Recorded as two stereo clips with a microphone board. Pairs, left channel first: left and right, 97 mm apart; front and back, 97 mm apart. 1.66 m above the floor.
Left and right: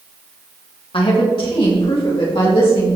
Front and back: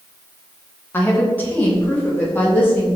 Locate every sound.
0.9 s a woman speaking: 70° left, 2.5 m